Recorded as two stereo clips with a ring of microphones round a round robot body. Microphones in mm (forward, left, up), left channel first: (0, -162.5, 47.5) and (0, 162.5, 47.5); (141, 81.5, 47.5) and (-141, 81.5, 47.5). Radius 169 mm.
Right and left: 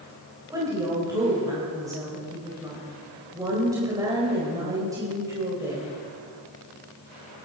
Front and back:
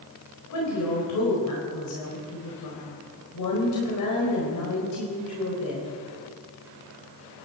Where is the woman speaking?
10° left, 3.5 m.